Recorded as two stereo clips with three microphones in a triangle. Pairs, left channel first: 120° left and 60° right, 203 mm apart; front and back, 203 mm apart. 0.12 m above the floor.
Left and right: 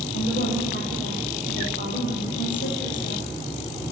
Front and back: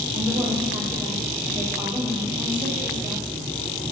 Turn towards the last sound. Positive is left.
turn(degrees=115)